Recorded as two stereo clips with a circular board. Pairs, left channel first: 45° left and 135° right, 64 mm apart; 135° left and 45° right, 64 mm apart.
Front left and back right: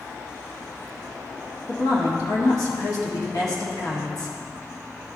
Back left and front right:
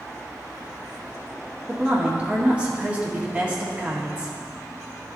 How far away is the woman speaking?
About 1.8 m.